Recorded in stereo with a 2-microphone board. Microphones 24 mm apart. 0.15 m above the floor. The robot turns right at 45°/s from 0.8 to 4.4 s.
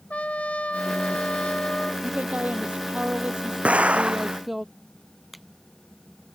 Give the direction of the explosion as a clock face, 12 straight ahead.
3 o'clock.